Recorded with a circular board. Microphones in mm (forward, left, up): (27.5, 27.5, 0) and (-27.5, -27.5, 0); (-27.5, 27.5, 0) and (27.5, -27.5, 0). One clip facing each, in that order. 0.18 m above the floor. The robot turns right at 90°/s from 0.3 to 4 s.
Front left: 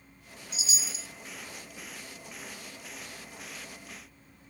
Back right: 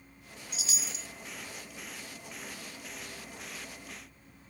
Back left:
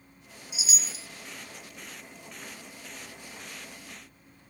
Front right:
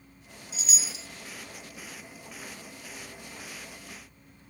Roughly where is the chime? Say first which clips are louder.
Front left 2 dB, even; behind right.